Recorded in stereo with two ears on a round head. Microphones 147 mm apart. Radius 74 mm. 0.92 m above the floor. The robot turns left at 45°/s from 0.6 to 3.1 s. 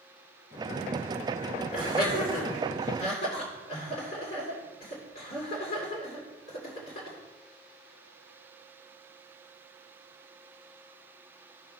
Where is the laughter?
55° left (ahead or behind), 2.5 m; by 7.2 s 60° left (ahead or behind), 2.5 m.